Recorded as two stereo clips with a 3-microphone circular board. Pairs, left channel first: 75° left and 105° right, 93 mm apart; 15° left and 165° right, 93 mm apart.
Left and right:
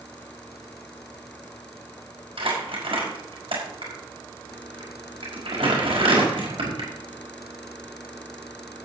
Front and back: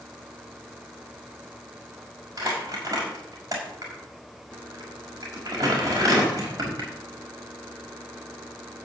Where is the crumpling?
115° right, 5.5 m.